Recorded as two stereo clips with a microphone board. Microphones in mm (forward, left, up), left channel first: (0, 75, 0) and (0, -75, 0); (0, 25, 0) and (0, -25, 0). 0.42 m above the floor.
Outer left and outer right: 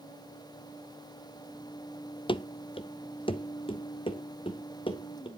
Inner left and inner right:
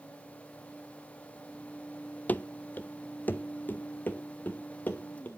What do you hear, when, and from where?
2.3 s running footsteps: 35° left (ahead or behind), 0.5 m